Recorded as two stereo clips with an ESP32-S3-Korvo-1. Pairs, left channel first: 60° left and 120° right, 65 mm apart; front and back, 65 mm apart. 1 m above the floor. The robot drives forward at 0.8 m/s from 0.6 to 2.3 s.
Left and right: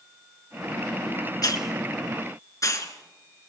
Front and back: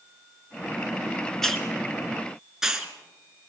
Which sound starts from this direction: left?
A hiss, at 1.4 s.